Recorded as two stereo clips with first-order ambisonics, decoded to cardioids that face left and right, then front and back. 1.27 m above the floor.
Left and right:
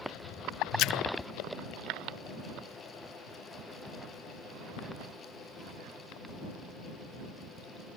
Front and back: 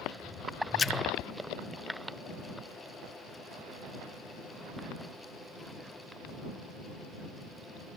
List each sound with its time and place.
0.8 s a splash: 65° left